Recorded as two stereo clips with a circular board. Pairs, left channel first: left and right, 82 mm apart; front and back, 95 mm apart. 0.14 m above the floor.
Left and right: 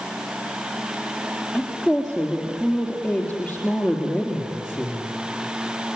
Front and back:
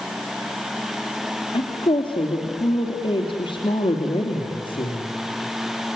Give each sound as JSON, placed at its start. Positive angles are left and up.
{"t": 1.5, "sound": "a woman speaking", "azimuth_deg": 5, "distance_m": 3.0}